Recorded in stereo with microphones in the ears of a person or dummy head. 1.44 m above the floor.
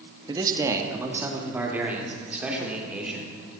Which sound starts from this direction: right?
A man speaking, at 0.3 s.